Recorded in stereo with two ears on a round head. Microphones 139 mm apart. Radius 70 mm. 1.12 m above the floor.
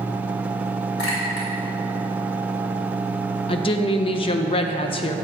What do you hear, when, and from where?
1.0 s a clink: 80° left, 3 m
3.5 s a woman speaking: 35° left (ahead or behind), 0.7 m